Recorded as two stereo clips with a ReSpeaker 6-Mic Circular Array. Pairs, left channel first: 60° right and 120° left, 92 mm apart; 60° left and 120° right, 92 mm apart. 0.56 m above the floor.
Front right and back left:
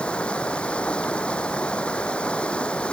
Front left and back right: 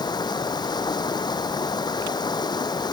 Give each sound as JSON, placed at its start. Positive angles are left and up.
{"t": 0.0, "sound": "running water", "azimuth_deg": 20}